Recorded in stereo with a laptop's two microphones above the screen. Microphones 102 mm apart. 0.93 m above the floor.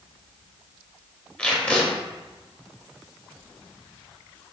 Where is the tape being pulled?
10° left (ahead or behind), 0.7 m.